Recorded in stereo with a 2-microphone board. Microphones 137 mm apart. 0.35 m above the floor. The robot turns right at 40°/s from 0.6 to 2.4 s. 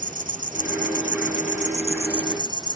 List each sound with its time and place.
0.0 s an insect: 105° right; by 2.8 s 30° right